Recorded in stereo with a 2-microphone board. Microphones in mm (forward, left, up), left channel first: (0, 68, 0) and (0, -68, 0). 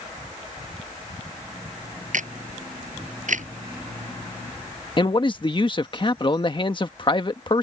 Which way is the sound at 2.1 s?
70° right (ahead or behind).